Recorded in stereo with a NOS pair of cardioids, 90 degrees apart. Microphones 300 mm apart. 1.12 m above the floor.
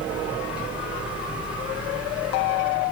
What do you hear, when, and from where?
0.0 s a fan: 5° right, 1.3 m